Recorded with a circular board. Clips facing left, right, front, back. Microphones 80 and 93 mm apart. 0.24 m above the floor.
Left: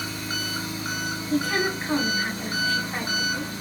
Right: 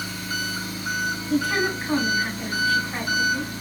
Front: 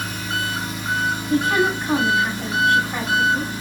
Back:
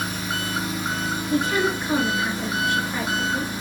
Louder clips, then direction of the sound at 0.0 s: Right 1 dB, front 2 dB; 115° left.